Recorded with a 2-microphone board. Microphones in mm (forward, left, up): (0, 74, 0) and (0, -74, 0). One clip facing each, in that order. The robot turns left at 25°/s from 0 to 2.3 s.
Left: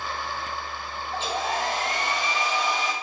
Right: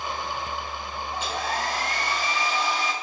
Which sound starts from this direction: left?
A hair dryer, at 1.1 s.